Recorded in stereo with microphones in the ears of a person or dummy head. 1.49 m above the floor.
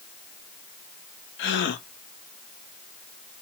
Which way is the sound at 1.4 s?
60° left (ahead or behind).